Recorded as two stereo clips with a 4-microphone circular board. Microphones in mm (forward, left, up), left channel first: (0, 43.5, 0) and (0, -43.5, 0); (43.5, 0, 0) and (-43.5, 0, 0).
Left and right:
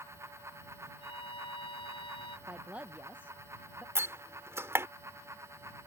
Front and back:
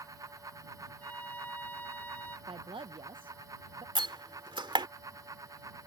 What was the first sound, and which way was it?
A violin, 70° left.